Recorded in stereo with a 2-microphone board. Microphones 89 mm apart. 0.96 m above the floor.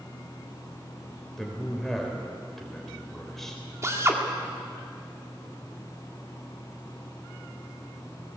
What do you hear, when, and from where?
1.4 s a man speaking: 5° left (ahead or behind), 4 m
3.8 s a drill: 30° right (ahead or behind), 2.0 m